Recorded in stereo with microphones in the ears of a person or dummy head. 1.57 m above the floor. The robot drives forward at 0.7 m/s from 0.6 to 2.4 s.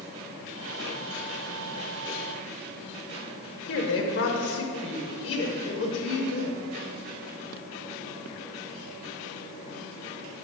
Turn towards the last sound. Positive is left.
turn(degrees=60)  # may be behind; listen again after turning